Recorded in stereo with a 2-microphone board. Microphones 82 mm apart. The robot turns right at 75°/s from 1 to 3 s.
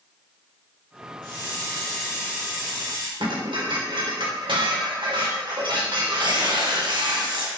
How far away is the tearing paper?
About 2.0 m.